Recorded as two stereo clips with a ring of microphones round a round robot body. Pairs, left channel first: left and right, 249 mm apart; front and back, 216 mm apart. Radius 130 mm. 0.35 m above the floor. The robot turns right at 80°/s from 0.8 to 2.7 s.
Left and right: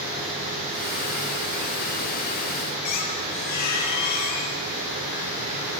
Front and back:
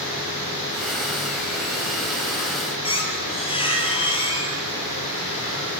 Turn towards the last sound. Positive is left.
turn(degrees=65)